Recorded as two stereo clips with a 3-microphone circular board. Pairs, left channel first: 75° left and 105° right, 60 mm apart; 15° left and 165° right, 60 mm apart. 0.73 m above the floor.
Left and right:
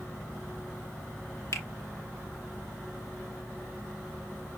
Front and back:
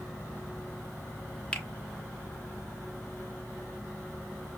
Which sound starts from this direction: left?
A finger snap, at 1.5 s.